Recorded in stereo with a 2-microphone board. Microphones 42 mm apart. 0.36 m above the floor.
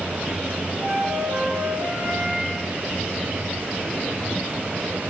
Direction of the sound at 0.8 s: 30° right (ahead or behind).